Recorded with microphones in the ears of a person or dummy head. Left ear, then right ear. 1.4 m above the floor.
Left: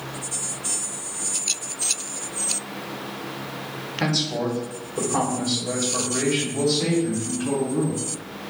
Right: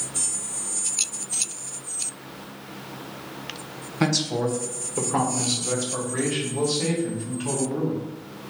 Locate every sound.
4.0 s a man speaking: 75° right (ahead or behind), 1.4 m; by 8.0 s 25° right (ahead or behind), 2.5 m